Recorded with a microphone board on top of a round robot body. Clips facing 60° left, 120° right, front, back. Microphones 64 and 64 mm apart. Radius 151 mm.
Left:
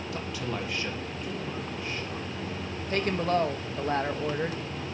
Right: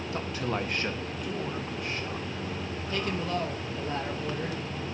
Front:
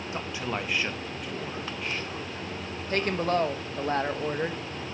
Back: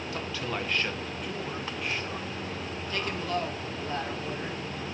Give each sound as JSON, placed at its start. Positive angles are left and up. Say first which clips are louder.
{"t": 0.1, "sound": "a man speaking", "louder": "right 3 dB, front 2 dB", "azimuth_deg": -65, "distance_m": 1.0}
{"t": 2.9, "sound": "a woman speaking", "louder": "left 5 dB, front 6 dB", "azimuth_deg": 30, "distance_m": 1.0}